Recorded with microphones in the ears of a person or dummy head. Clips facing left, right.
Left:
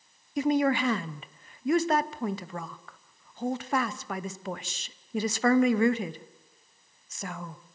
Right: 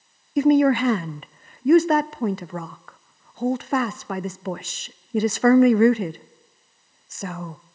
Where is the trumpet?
No trumpet in this recording.